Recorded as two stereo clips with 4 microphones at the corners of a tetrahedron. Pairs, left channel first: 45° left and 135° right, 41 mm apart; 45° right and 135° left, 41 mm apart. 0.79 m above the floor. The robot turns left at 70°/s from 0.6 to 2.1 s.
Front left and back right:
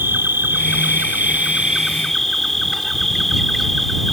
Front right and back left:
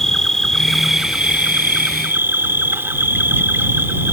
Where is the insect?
125° right; by 4.1 s 130° left.